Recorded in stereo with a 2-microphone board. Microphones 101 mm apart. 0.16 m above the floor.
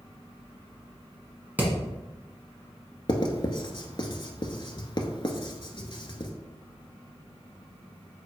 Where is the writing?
45° left (ahead or behind), 0.6 m.